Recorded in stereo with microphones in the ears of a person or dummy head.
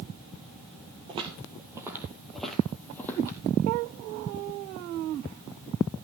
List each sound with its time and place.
1.1 s footsteps: 30° right (ahead or behind), 2.0 m; by 3.4 s 15° left (ahead or behind), 3 m